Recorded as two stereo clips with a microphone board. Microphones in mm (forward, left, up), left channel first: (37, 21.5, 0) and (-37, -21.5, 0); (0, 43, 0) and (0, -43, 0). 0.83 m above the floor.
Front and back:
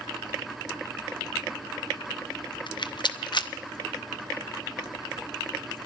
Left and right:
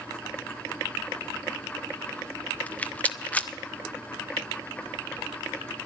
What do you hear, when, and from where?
2.7 s a rattle: 20° left, 0.6 m